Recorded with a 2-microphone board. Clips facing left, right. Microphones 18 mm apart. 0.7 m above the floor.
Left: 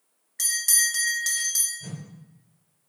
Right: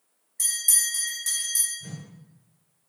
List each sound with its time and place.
0.4 s a bell: 50° left (ahead or behind), 1.0 m
1.8 s a whoosh: 40° left (ahead or behind), 2.5 m